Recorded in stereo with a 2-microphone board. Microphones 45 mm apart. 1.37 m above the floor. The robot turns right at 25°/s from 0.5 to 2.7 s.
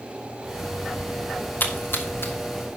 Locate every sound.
1.6 s a splash: 45° left (ahead or behind), 1.6 m; by 2.3 s 60° left (ahead or behind), 1.6 m